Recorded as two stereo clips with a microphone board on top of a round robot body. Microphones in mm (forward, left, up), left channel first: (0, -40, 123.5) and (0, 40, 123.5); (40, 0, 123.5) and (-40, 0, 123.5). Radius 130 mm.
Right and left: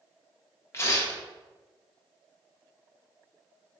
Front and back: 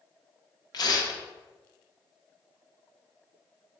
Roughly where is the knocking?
No knocking in this recording.